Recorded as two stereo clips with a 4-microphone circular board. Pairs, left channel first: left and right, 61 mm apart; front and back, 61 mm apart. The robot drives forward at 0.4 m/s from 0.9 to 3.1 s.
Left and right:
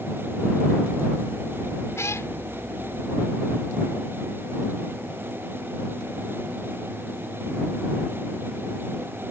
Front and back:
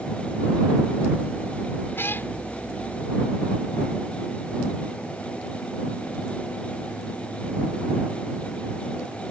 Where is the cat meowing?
50° left; by 2.3 s 55° left.